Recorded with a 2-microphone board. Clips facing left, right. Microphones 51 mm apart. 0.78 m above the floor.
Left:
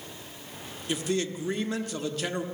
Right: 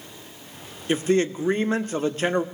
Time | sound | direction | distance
0.9 | a man speaking | 35° right (ahead or behind) | 1.3 m